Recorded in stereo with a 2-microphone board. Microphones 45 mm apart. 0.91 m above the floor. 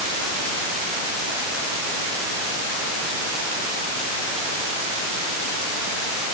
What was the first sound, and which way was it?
Only background noise.